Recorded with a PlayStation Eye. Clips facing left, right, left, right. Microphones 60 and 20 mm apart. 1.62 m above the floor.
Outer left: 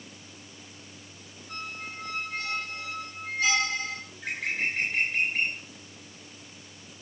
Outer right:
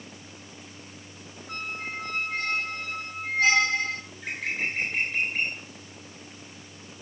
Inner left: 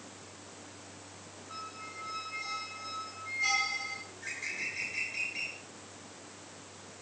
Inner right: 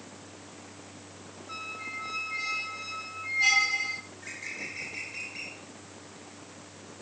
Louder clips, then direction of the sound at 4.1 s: Even, inner left 1 dB; centre (ahead or behind).